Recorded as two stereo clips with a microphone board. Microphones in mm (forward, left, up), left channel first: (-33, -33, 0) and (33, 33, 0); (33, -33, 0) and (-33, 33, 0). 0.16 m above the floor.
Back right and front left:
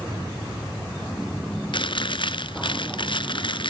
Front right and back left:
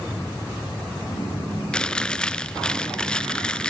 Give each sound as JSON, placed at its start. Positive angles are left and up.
{"t": 1.7, "sound": "chewing", "azimuth_deg": -125, "distance_m": 0.8}